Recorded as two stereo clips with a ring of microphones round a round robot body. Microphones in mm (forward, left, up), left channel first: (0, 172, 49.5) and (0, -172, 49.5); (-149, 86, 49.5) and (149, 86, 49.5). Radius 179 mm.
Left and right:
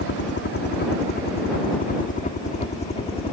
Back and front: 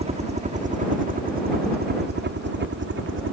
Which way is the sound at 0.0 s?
55° left.